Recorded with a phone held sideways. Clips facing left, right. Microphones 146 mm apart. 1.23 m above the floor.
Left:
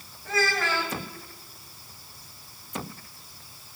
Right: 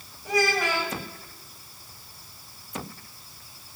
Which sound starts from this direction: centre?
A child speaking, at 0.2 s.